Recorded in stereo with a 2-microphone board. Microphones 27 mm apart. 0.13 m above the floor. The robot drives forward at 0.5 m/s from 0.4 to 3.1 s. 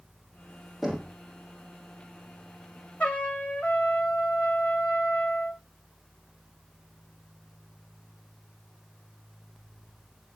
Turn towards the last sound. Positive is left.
turn(degrees=70)  # may be behind; listen again after turning